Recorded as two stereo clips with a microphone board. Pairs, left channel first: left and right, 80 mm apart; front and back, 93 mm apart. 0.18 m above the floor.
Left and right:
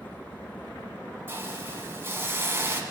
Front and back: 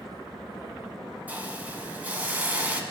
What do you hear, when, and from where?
1.3 s a hiss: 120° right, 1.4 m